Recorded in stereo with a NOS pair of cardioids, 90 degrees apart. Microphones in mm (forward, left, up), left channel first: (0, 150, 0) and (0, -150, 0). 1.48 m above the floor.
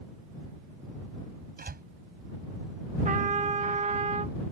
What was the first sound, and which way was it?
A door slam, 30° right.